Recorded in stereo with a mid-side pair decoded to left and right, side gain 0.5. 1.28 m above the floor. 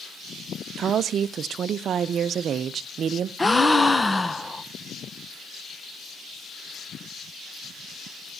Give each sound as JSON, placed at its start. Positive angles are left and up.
{"t": 0.8, "sound": "a woman speaking", "azimuth_deg": -50, "distance_m": 0.6}
{"t": 3.4, "sound": "a gasp", "azimuth_deg": 20, "distance_m": 0.7}